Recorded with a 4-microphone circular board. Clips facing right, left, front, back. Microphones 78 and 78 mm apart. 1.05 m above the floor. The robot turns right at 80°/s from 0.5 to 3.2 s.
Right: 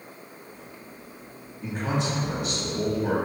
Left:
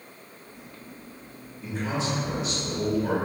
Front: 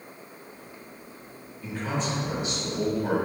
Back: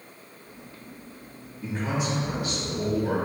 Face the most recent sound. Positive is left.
turn(degrees=-5)